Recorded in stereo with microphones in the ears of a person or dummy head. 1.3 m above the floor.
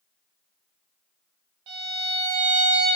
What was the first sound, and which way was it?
A violin, 25° right (ahead or behind).